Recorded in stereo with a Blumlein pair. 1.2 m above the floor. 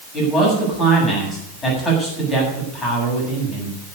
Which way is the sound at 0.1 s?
15° left.